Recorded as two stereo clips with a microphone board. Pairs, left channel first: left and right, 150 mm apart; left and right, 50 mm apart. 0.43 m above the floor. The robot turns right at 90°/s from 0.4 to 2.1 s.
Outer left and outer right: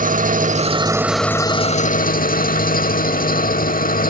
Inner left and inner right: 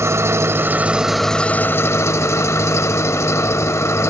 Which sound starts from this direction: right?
An engine running, at 0.0 s.